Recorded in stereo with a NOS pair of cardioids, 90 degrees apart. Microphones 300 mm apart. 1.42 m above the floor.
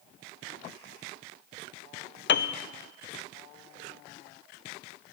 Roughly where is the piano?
Ahead left.